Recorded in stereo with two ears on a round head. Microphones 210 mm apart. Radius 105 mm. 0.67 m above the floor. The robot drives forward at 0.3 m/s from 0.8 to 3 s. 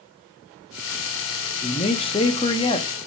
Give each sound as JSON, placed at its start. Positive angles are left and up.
{"t": 1.6, "sound": "a man speaking", "side_deg": 25, "distance_m": 0.6}